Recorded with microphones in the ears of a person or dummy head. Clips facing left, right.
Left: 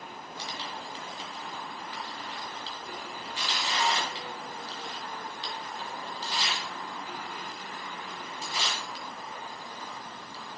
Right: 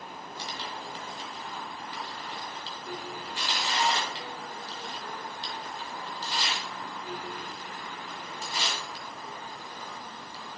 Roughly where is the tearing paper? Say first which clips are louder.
Even; right.